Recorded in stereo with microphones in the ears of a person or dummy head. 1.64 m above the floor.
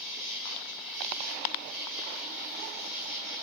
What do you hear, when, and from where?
0.0 s an insect: 10° right (ahead or behind), 9.5 m